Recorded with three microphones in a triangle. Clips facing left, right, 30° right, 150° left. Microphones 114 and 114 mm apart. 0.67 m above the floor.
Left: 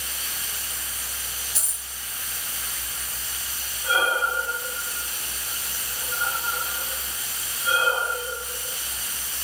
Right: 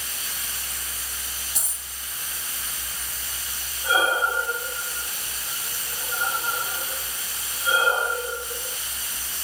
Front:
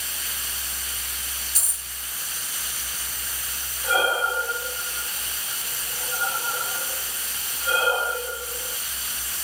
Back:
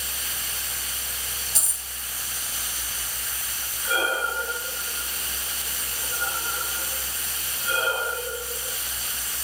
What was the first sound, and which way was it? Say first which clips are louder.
A dropped coin: right 1 dB, back 2 dB; 155° right.